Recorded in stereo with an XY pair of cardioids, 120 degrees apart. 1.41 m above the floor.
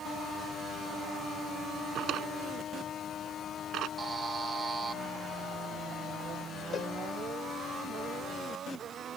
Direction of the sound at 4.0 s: 30° right.